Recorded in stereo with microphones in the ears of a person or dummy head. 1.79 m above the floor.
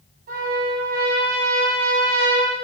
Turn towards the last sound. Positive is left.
turn(degrees=-45)  # may be behind; listen again after turning